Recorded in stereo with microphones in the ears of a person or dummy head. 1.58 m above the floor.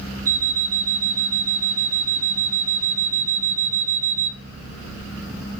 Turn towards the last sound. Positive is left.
turn(degrees=-15)  # may be behind; listen again after turning